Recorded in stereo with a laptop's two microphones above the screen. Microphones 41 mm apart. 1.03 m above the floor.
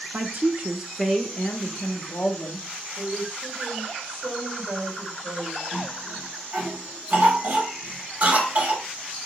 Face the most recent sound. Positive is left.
turn(degrees=-50)  # may be behind; listen again after turning